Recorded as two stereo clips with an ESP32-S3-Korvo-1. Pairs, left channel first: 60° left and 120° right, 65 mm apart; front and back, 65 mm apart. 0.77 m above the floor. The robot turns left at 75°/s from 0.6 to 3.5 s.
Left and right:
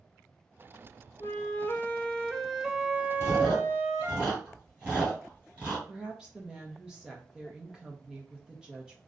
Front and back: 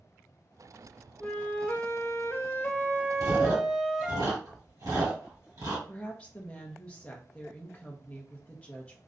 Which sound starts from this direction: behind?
Chewing, at 3.2 s.